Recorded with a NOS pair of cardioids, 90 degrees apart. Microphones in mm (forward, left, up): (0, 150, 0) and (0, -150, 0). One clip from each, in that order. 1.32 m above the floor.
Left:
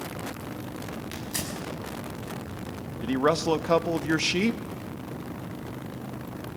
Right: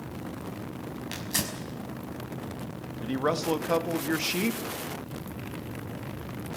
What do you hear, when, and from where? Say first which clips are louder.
1.1 s tearing paper: right 4 dB; 30° right, 5.5 m
3.0 s a man speaking: left 4 dB; 20° left, 1.5 m